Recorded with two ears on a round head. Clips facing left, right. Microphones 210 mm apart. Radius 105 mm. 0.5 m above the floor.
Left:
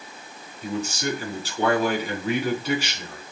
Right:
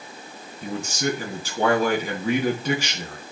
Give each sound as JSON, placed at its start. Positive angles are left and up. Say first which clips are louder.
{"t": 0.6, "sound": "a man speaking", "louder": "right 1 dB", "side_deg": -40, "distance_m": 4.0}